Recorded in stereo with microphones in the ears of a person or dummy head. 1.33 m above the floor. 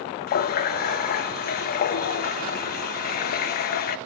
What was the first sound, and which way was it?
A running tap, 45° left (ahead or behind).